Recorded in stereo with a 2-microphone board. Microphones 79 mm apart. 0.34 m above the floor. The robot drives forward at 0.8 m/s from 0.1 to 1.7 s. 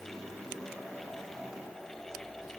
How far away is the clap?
I don't hear a clap.